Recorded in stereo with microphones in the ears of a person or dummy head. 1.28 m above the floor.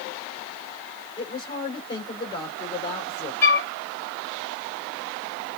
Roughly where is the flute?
Centre.